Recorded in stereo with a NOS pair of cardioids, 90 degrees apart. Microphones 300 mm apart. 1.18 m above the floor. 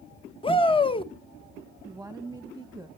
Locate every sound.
0.4 s a shout: 15° left, 1.0 m
1.8 s a woman speaking: 5° right, 1.3 m